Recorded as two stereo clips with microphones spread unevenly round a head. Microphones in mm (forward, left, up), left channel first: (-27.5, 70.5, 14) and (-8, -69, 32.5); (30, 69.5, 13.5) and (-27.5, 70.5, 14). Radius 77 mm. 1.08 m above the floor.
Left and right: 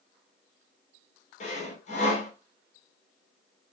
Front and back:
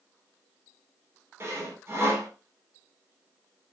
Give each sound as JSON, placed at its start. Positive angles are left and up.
{"t": 1.4, "sound": "sawing", "azimuth_deg": 135, "distance_m": 3.0}